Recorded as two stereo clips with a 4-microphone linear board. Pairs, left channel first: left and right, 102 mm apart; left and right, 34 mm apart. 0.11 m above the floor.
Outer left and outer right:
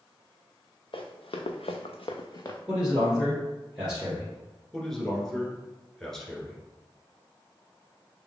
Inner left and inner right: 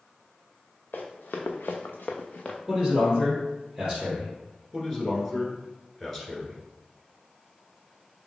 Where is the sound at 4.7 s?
5° left (ahead or behind), 1.2 m.